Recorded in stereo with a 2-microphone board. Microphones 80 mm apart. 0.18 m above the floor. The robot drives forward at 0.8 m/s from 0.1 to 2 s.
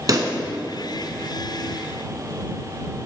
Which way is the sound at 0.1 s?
50° right (ahead or behind).